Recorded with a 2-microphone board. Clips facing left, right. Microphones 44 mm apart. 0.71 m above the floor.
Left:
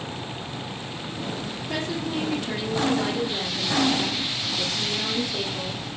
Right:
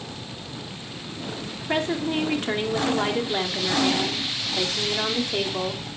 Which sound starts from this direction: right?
A woman speaking, at 1.7 s.